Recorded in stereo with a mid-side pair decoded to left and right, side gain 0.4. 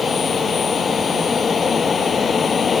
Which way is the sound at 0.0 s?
45° left.